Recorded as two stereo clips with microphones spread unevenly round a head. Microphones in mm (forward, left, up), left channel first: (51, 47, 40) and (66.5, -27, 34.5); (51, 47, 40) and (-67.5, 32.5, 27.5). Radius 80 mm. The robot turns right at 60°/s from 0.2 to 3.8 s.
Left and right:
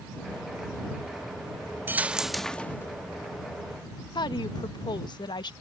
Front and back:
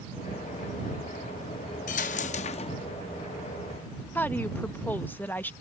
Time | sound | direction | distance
1.9 | a dropped coin | 15° right | ?
4.2 | a woman speaking | 85° left | ?